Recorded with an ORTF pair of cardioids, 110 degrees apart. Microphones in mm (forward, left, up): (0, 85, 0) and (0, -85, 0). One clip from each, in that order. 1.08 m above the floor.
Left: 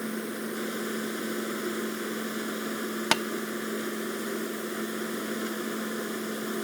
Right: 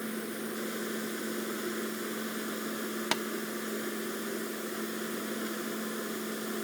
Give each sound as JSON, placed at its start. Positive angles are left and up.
{"t": 0.0, "sound": "a machine running", "azimuth_deg": 20}
{"t": 3.1, "sound": "tapping", "azimuth_deg": 35}